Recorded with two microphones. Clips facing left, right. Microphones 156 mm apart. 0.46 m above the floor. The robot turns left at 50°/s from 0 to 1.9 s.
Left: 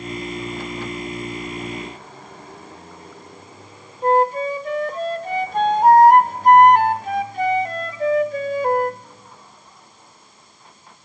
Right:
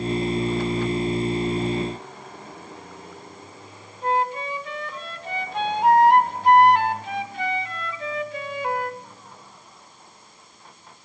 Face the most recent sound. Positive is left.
turn(degrees=45)  # may be behind; listen again after turning